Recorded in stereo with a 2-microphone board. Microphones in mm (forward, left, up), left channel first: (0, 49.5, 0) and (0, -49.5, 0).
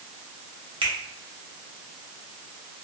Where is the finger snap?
65° right (ahead or behind), 0.9 m.